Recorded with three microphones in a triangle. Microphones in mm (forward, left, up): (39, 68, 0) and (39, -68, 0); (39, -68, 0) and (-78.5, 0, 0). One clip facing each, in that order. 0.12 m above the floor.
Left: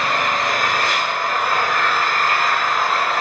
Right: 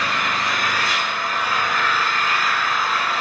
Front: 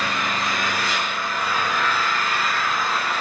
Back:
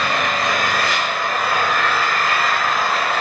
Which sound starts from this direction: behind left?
An engine running, at 0.0 s.